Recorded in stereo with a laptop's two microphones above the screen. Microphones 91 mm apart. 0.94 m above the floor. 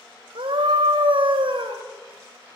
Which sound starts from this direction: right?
A scream, at 0.3 s.